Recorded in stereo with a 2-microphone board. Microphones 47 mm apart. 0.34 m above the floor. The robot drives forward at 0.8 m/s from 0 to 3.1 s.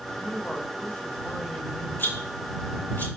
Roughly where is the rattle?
Left.